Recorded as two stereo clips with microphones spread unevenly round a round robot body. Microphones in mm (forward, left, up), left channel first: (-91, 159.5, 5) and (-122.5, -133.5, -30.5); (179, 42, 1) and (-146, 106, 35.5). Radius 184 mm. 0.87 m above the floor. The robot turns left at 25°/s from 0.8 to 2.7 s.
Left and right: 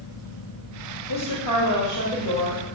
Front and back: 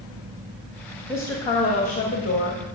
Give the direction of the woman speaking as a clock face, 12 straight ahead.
10 o'clock.